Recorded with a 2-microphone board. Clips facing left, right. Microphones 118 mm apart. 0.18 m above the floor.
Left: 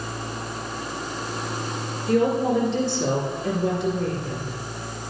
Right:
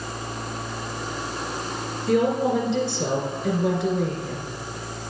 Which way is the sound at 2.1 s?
60° right (ahead or behind).